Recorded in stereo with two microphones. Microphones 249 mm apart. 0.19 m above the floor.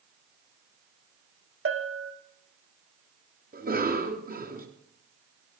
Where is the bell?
55° right (ahead or behind), 1.0 m.